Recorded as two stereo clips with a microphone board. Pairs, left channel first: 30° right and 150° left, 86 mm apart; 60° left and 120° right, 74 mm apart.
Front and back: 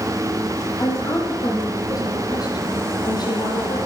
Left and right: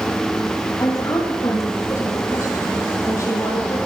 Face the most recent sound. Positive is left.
turn(degrees=10)